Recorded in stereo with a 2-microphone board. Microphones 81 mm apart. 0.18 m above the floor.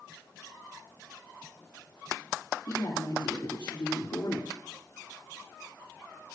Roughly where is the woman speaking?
Left.